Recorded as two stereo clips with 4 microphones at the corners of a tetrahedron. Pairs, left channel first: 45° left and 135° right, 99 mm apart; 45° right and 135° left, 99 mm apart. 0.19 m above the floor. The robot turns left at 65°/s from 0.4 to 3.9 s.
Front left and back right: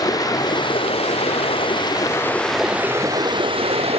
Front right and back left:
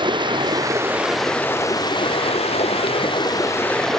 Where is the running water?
95° left; by 4.0 s 130° right.